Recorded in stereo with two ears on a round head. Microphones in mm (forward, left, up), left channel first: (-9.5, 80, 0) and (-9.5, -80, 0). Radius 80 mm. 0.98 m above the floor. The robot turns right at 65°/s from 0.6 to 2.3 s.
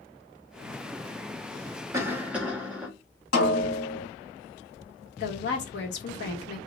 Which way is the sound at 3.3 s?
70° left (ahead or behind).